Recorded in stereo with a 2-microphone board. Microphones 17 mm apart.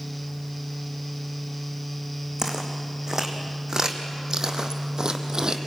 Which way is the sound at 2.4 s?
30° right (ahead or behind).